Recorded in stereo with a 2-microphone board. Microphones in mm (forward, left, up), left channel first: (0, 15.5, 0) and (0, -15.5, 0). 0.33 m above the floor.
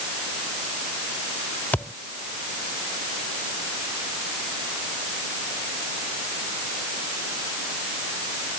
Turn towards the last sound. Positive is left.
turn(degrees=60)  # may be behind; listen again after turning